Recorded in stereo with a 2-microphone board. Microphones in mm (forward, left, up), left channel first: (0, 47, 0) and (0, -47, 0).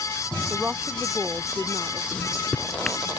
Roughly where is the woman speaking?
Centre.